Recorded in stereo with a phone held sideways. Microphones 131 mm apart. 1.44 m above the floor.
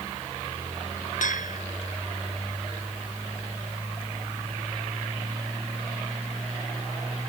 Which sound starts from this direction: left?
A bell, at 1.2 s.